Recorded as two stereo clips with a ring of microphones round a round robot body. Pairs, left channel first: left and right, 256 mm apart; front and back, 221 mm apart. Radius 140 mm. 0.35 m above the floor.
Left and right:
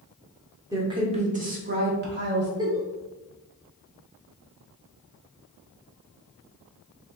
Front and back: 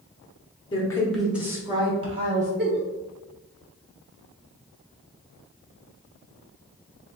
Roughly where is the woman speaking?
Ahead right.